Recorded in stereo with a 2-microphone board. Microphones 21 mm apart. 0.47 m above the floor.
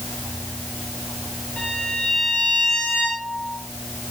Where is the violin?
70° left (ahead or behind), 8.5 m.